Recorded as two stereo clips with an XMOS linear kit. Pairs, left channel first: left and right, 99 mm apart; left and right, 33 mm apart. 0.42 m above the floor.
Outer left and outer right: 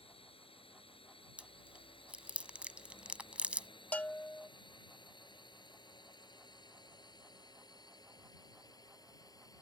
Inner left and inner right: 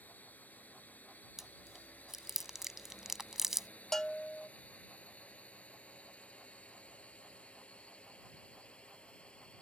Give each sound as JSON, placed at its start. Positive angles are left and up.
{"t": 0.0, "sound": "a drone", "side_deg": 65}
{"t": 1.4, "sound": "chewing", "side_deg": -15}
{"t": 3.9, "sound": "a bell", "side_deg": 15}